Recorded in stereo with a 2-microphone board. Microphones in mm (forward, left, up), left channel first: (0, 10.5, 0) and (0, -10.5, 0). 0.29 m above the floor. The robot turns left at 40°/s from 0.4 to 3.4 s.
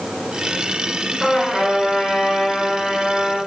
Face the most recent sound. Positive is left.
turn(degrees=10)